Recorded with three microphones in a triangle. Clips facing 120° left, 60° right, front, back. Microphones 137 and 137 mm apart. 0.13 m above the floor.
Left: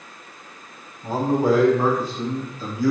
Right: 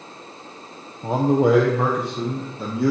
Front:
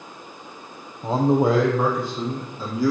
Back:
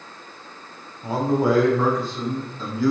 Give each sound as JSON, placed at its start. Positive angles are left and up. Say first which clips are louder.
{"t": 1.0, "sound": "a man speaking", "louder": "right 2 dB, front 2 dB", "azimuth_deg": -60, "distance_m": 3.5}